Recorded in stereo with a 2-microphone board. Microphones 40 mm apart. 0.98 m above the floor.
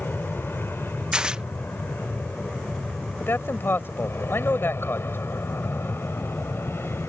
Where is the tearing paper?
20° right (ahead or behind).